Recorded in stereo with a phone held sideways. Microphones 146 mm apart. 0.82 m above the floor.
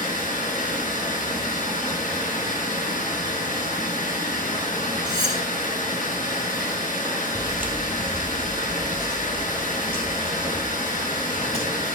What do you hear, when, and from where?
0.0 s running water: 85° left, 4 m
5.0 s cutlery clinking: 30° left (ahead or behind), 4 m
7.3 s footsteps: 25° right (ahead or behind), 1.3 m; by 12.0 s 45° left (ahead or behind), 5 m